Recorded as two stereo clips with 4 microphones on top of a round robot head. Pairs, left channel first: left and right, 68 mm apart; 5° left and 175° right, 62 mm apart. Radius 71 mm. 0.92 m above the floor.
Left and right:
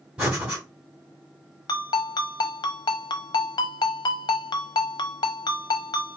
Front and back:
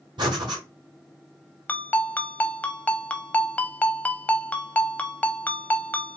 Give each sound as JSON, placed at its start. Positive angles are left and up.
{"t": 0.2, "sound": "breathing", "azimuth_deg": -170, "distance_m": 2.5}
{"t": 1.7, "sound": "a ringtone", "azimuth_deg": 75, "distance_m": 0.8}